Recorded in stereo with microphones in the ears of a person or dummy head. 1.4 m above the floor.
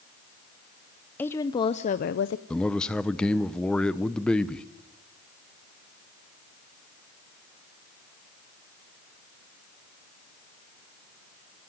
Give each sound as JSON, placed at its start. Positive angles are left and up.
{"t": 1.2, "sound": "a woman speaking", "side_deg": 10, "distance_m": 0.8}
{"t": 2.5, "sound": "a man speaking", "side_deg": 5, "distance_m": 0.7}